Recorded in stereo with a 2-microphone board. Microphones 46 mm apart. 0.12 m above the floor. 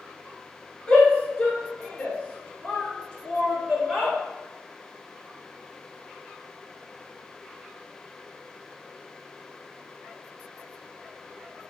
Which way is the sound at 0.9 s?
30° left (ahead or behind).